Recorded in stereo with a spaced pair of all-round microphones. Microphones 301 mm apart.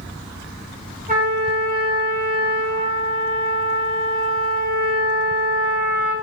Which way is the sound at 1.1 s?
25° right (ahead or behind).